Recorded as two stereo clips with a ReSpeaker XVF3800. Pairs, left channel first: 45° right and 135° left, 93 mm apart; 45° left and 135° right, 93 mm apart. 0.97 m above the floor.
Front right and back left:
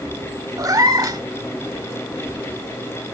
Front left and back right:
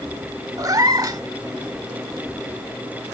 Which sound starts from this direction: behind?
A cat meowing, at 0.6 s.